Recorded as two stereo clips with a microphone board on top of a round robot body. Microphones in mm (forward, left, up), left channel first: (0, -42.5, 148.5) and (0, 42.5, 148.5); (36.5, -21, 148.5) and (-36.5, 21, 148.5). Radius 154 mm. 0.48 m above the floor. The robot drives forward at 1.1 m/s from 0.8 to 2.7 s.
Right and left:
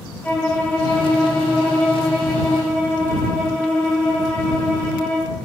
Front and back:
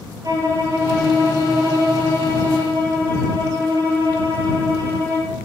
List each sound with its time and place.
0.2 s a violin: 165° right, 7.5 m; by 5.3 s 170° right, 9.5 m